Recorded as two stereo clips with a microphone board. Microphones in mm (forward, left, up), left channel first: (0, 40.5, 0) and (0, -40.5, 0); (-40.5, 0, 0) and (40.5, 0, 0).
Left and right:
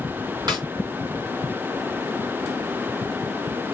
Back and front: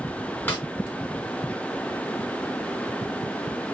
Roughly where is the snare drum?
Behind right.